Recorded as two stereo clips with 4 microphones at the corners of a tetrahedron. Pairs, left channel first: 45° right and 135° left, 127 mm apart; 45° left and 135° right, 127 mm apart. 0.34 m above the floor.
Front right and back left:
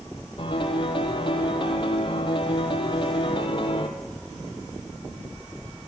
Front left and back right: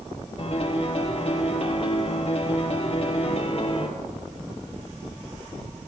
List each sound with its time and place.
0.4 s a piano: 5° left, 3 m